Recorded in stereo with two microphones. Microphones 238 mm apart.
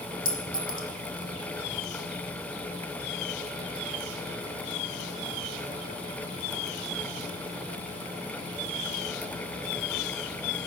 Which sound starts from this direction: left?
A clink, at 0.2 s.